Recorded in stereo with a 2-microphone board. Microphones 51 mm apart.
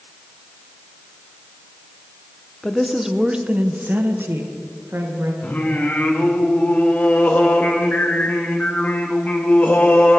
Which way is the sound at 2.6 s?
5° left (ahead or behind).